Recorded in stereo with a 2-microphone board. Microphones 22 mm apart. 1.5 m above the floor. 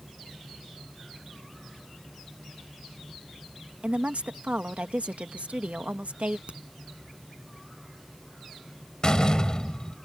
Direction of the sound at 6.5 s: 65° right (ahead or behind).